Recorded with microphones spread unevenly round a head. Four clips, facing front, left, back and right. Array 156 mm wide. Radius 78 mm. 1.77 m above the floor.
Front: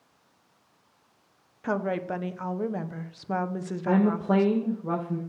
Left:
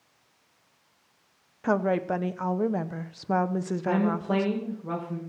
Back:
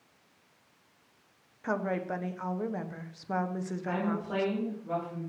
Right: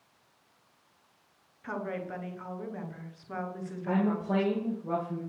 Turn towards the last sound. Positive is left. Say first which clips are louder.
# left 2 dB, front 10 dB
turn(degrees=10)